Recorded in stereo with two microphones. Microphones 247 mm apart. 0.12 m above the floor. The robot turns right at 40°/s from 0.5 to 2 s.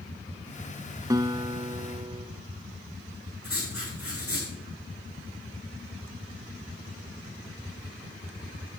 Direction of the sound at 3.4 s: 65° left (ahead or behind).